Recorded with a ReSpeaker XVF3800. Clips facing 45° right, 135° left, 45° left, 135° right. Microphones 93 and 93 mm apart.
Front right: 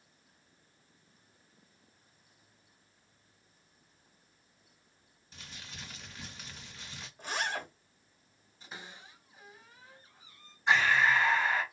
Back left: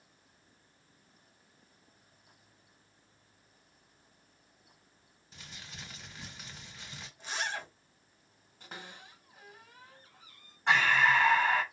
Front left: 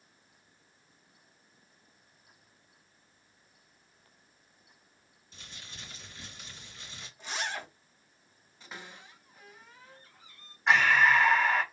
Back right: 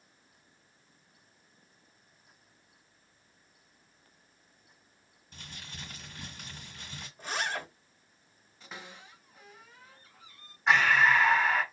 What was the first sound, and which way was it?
Crumpling, 140° right.